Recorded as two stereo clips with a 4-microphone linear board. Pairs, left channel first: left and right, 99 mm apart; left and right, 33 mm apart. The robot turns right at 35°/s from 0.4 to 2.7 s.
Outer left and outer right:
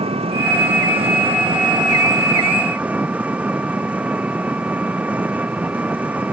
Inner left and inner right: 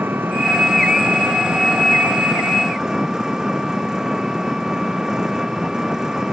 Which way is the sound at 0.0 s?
95° right.